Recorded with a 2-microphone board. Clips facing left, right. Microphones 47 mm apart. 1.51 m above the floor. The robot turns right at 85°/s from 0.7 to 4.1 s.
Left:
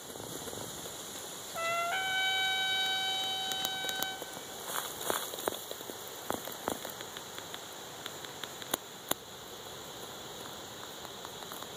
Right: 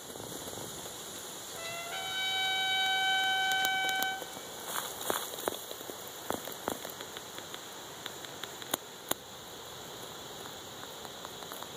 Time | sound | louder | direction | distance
1.6 | a trumpet | left 8 dB | 90° left | 0.7 m